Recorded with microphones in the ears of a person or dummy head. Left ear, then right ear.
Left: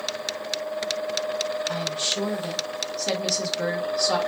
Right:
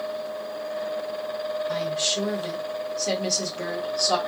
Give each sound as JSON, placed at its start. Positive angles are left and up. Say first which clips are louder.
{"t": 1.7, "sound": "a woman speaking", "louder": "right 1 dB", "side_deg": 15, "distance_m": 1.4}